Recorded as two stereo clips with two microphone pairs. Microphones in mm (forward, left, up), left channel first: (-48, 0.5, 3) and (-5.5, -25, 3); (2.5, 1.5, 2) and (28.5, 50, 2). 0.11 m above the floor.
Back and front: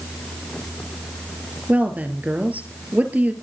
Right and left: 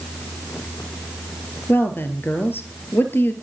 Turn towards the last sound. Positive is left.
turn(degrees=-80)